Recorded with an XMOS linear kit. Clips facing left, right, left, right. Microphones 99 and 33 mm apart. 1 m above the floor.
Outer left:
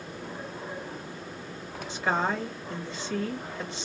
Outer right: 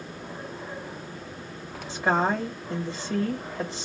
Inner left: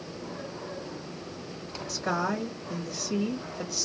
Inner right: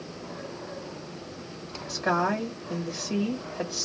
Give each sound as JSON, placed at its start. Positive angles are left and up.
{"t": 1.9, "sound": "a woman speaking", "side_deg": -30, "distance_m": 1.4}